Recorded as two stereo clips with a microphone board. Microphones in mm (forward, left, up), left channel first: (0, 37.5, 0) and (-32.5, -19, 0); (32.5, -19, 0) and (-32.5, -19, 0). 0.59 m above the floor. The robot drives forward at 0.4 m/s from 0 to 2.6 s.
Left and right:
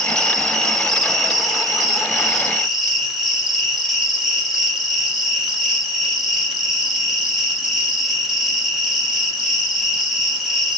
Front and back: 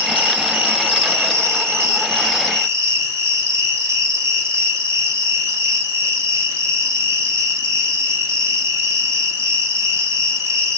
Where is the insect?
130° left, 1.9 m; by 10.8 s 155° left, 2.5 m.